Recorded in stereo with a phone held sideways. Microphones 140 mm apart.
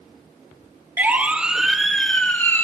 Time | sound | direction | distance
1.0 | a siren | 15° right (ahead or behind) | 2.5 m